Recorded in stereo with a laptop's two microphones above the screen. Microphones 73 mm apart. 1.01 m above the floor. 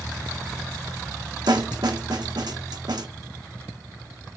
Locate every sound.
1.5 s a snare drum: 75° right (ahead or behind), 0.8 m